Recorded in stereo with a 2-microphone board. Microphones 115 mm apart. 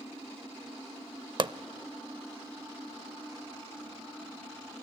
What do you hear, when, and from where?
1.4 s a pop: 45° right (ahead or behind), 0.6 m